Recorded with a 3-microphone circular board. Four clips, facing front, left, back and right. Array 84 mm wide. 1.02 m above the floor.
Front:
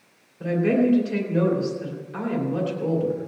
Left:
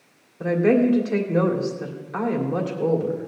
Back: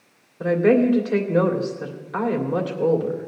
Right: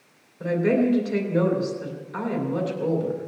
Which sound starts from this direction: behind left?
A woman speaking, at 0.4 s.